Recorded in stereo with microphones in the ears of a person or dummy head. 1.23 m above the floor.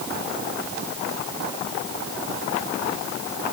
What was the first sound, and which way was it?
Only background noise.